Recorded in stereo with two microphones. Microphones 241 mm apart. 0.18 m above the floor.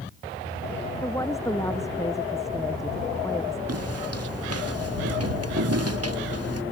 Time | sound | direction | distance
1.0 | a woman speaking | 10° left (ahead or behind) | ?
3.7 | footsteps | 85° right | ?